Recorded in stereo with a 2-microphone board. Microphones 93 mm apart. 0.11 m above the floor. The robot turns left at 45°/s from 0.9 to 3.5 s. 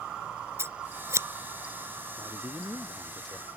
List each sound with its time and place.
0.6 s scissors: 30° right (ahead or behind)
2.2 s a man speaking: 135° right; by 3.5 s 165° left